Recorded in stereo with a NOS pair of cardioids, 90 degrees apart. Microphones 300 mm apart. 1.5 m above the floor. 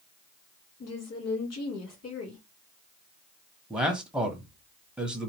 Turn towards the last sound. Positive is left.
turn(degrees=-5)